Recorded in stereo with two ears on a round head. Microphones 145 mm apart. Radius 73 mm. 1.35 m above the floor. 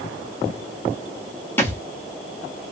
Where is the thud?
15° left (ahead or behind), 0.9 m.